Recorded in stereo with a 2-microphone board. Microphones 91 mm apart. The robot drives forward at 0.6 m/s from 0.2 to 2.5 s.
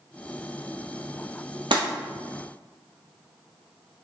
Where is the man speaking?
No man speaking in this recording.